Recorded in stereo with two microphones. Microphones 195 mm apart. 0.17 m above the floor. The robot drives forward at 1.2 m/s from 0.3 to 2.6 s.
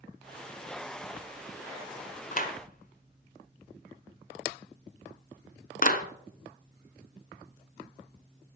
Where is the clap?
45° left (ahead or behind), 1.6 m.